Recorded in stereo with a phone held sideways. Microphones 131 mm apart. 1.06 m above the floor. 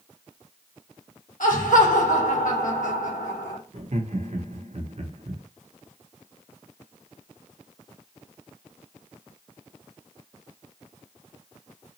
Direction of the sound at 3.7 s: 55° right (ahead or behind).